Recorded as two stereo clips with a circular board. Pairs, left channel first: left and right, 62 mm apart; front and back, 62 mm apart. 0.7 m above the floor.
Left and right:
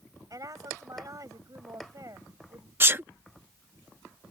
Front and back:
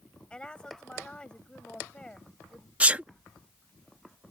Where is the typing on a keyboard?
No typing on a keyboard in this recording.